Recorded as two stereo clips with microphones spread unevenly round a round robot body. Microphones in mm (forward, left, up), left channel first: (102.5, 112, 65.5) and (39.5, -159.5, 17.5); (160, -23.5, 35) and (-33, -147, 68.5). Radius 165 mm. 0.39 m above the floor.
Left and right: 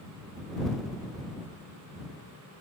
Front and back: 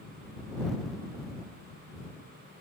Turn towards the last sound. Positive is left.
No sound to turn to.